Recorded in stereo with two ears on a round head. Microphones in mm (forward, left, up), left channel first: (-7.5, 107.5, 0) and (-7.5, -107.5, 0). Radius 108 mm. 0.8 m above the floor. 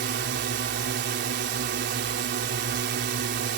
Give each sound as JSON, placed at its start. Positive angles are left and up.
{"t": 0.0, "sound": "a drone", "side_deg": -45}